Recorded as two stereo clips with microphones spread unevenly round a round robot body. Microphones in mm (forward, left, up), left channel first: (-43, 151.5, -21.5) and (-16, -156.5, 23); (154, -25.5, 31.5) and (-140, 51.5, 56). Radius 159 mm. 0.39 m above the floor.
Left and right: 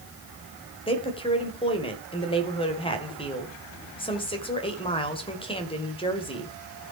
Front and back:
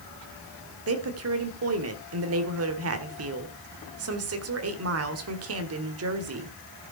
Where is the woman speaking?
150° left, 1.8 m.